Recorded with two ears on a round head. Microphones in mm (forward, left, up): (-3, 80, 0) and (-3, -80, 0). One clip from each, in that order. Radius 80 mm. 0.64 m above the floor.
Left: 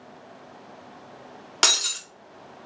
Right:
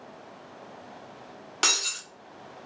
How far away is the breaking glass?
About 0.8 m.